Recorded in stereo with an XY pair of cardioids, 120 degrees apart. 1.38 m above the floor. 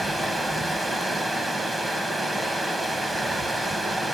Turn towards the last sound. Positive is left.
turn(degrees=-20)